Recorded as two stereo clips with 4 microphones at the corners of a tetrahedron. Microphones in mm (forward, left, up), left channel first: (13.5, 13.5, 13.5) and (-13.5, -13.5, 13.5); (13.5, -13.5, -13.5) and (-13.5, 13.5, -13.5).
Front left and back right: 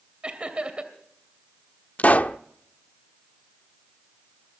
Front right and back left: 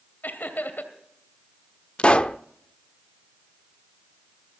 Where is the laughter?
75° right, 2.5 m.